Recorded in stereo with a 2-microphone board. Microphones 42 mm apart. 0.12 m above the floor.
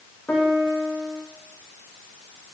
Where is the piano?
45° left (ahead or behind), 6.5 m.